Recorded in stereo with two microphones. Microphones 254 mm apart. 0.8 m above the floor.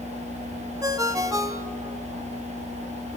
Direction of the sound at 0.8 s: 15° right (ahead or behind).